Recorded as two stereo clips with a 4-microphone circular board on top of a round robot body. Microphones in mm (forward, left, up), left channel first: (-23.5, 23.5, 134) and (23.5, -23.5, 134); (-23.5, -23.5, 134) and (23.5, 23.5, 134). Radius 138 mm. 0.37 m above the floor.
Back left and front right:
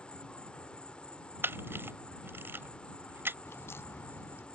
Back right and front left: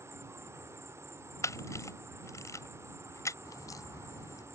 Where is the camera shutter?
100° right.